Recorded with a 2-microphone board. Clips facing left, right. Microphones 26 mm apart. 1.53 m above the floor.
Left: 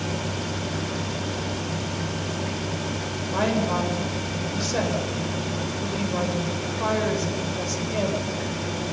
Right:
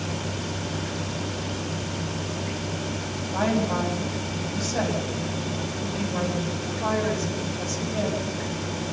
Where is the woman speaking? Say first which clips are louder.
Left 1 dB; 40° left (ahead or behind), 8 m.